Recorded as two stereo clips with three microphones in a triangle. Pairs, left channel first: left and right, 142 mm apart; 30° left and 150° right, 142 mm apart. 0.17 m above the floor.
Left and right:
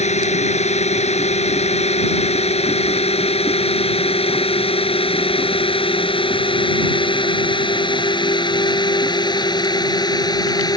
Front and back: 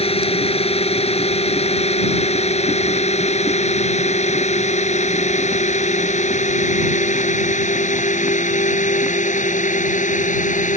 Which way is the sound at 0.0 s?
65° left.